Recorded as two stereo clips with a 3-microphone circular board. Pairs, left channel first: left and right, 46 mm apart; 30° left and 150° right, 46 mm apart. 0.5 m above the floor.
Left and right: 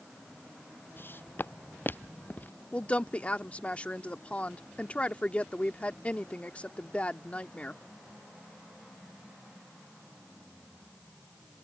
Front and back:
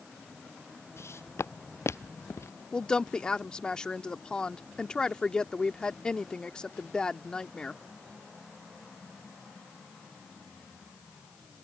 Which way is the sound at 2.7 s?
80° left.